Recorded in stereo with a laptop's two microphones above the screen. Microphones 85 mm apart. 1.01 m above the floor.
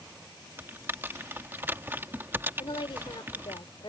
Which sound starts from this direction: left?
A woman speaking, at 2.6 s.